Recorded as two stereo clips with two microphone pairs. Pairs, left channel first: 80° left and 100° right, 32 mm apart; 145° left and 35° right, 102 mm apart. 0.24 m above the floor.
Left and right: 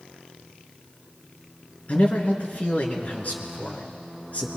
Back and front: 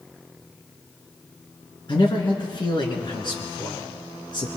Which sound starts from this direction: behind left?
A man speaking, at 1.9 s.